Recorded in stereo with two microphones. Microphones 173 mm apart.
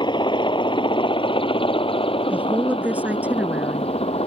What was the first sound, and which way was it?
A helicopter, 25° left (ahead or behind).